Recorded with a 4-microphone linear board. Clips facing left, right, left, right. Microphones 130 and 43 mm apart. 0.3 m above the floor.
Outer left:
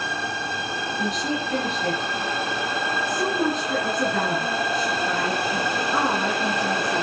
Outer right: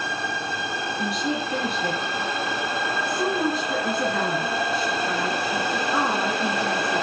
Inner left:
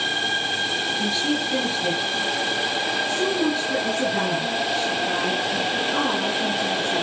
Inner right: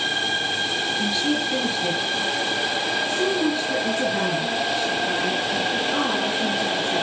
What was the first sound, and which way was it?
A woman speaking, 5° right (ahead or behind).